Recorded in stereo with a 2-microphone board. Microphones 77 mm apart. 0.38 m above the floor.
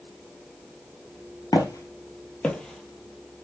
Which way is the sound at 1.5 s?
60° left (ahead or behind).